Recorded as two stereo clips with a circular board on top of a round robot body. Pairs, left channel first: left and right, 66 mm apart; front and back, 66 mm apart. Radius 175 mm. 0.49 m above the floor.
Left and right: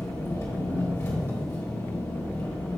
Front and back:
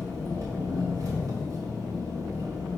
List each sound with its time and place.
0.0 s an engine running: 140° left, 2 m